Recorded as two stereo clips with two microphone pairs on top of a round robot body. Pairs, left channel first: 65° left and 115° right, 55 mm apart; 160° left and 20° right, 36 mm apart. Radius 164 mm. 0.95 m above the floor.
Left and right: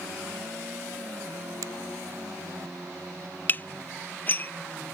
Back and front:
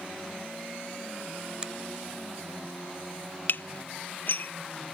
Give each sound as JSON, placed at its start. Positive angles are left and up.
{"t": 1.6, "sound": "a finger snap", "azimuth_deg": -95}
{"t": 3.5, "sound": "dishes clattering", "azimuth_deg": 125}